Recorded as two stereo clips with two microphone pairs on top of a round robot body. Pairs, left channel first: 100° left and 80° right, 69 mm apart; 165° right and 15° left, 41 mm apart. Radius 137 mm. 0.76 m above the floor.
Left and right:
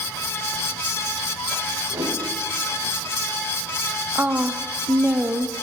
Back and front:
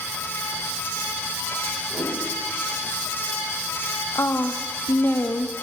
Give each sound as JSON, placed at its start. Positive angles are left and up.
{"t": 1.9, "sound": "a whoosh", "azimuth_deg": -45, "distance_m": 5.5}
{"t": 4.2, "sound": "a woman speaking", "azimuth_deg": -150, "distance_m": 0.7}